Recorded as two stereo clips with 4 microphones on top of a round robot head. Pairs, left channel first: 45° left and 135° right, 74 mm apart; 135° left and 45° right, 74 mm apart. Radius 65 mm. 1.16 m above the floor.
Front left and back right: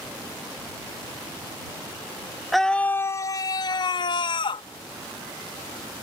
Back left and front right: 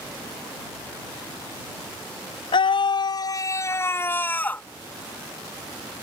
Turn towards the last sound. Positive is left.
turn(degrees=65)